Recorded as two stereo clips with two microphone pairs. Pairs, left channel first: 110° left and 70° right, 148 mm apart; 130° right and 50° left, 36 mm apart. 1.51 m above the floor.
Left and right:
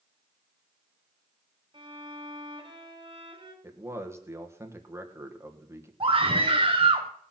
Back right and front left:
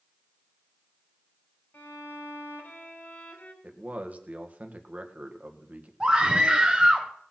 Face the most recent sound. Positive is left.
turn(degrees=-15)